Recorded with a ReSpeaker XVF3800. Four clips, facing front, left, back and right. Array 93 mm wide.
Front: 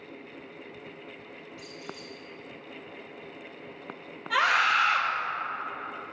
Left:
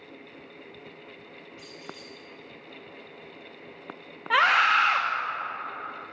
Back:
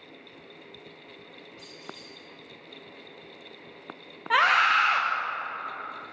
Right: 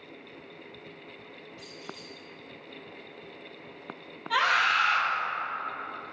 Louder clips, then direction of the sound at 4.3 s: Left 4 dB, back 3 dB; 130° left.